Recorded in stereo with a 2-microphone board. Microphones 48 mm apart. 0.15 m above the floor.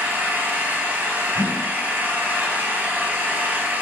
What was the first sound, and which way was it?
An engine running, 35° right (ahead or behind).